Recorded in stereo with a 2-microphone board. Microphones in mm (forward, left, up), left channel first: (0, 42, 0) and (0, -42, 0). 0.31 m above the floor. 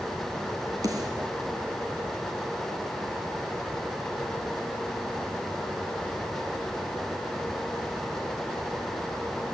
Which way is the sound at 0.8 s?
45° right (ahead or behind).